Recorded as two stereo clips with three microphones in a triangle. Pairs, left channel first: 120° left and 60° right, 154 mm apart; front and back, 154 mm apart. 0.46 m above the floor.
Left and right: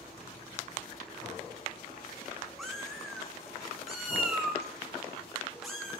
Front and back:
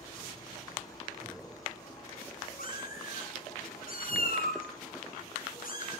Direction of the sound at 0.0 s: 65° left.